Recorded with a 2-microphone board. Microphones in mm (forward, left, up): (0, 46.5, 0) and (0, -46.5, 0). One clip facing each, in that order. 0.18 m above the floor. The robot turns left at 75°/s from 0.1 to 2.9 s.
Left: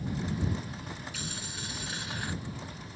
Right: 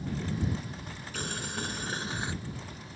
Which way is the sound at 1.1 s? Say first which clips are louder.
Right 5 dB; 70° right.